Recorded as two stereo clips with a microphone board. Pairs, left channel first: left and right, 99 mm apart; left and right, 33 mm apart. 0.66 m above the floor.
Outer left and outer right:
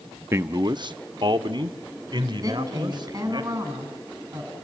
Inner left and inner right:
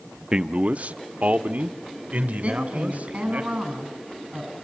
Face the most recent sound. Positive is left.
turn(degrees=-40)  # may be behind; listen again after turning